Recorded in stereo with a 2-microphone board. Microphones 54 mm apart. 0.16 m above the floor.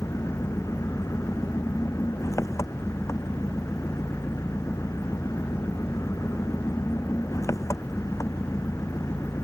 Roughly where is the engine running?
Left.